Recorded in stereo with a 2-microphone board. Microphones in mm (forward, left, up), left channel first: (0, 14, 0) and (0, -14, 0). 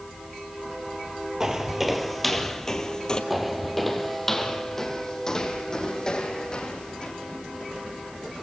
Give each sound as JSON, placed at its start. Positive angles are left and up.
{"t": 1.4, "sound": "footsteps", "side_deg": -20, "distance_m": 1.9}
{"t": 3.3, "sound": "footsteps", "side_deg": -5, "distance_m": 1.8}